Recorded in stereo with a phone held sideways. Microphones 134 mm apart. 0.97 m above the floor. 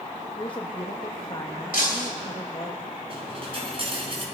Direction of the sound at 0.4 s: 40° left (ahead or behind).